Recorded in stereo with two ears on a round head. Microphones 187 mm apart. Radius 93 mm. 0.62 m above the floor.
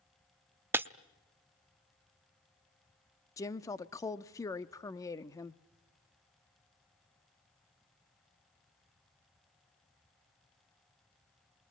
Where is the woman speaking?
15° left (ahead or behind), 0.7 m.